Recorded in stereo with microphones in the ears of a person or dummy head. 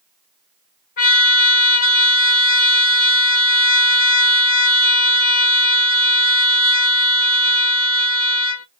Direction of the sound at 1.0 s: 30° left (ahead or behind).